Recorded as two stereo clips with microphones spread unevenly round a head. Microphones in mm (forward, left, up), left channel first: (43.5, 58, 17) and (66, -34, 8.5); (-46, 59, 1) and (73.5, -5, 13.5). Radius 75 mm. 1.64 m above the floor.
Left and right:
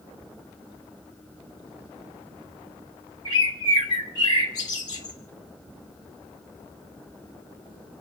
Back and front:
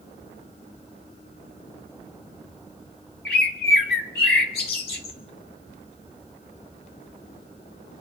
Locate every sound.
3.2 s a bird: 165° left, 1.8 m